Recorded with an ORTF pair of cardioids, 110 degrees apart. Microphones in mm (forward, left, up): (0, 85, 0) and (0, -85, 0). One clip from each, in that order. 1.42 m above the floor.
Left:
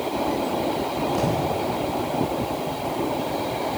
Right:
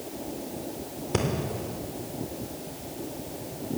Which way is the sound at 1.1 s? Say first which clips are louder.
Left 1 dB; 65° right.